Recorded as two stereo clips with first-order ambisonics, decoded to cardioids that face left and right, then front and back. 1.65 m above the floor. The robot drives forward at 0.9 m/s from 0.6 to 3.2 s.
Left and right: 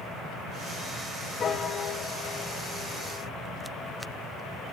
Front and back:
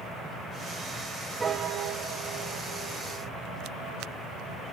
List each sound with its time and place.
1.4 s a piano: 115° left, 0.6 m; by 3.4 s 170° left, 1.8 m